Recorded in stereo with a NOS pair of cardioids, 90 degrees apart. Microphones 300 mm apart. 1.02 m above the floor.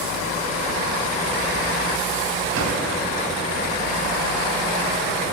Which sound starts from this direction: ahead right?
A drawer, at 2.5 s.